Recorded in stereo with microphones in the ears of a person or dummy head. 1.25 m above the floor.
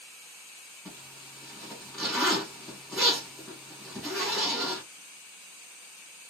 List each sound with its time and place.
0.8 s a zipper: centre (ahead or behind), 1.6 m